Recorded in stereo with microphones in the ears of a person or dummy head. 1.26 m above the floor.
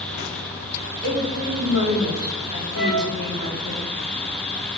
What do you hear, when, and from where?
1.0 s a woman speaking: 15° right (ahead or behind), 3.5 m
2.7 s a flute: 60° right (ahead or behind), 2.5 m